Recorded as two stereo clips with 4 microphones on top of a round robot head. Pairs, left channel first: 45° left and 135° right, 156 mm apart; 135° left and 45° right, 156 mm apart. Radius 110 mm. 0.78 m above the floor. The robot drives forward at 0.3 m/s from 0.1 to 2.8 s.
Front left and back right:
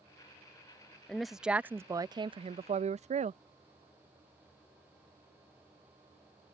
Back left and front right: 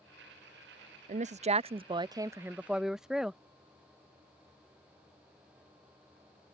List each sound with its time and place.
1.1 s a woman speaking: 40° right; by 3.4 s 130° right